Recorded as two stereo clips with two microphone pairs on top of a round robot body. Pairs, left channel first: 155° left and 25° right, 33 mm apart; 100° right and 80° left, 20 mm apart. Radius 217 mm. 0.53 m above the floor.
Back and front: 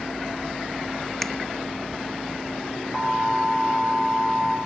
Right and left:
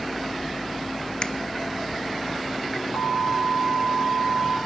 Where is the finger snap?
130° right, 1.1 m.